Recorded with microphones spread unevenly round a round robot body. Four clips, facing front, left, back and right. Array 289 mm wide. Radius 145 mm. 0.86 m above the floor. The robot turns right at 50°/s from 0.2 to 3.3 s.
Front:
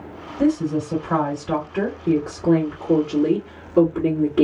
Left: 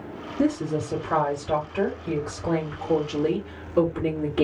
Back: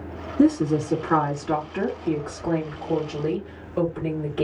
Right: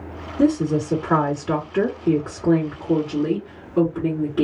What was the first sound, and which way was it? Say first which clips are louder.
A woman speaking: right 5 dB, back 1 dB; 165° right.